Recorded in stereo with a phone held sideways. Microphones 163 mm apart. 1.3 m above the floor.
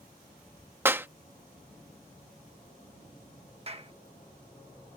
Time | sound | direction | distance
0.8 | a clap | 15° right (ahead or behind) | ?
3.7 | a clap | 40° right (ahead or behind) | ?